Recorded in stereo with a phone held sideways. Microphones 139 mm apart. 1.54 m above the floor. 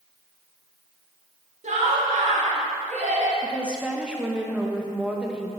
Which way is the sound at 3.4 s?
10° right (ahead or behind).